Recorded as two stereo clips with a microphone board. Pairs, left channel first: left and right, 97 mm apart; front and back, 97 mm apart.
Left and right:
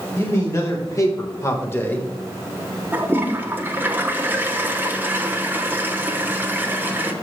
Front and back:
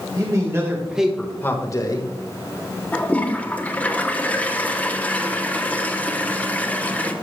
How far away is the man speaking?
About 1.8 m.